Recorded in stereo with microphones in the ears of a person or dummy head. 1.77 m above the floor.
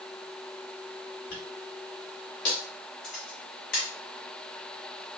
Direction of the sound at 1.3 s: 50° left (ahead or behind).